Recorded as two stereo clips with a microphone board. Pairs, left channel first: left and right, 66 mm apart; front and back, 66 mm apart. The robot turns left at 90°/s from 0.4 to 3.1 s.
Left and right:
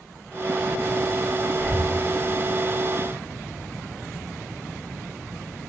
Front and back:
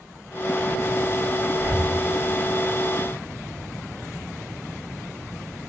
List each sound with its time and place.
1.5 s breathing: straight behind, 1.5 m; by 1.9 s 145° left, 1.5 m